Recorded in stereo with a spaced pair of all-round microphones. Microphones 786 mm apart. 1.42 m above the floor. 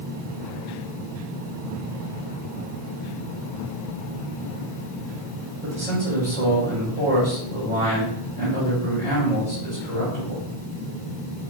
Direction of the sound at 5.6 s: 85° right.